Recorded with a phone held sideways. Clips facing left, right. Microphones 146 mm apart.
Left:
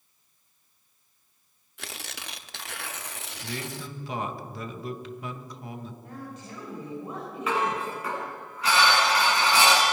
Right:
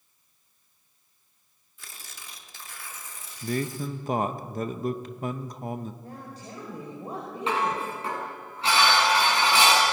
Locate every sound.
1.8 s tearing paper: 75° left (ahead or behind), 0.8 m
3.4 s a man speaking: 45° right (ahead or behind), 1.2 m
6.0 s a woman speaking: 35° right (ahead or behind), 4.5 m
7.5 s dishes clattering: 30° right (ahead or behind), 7.5 m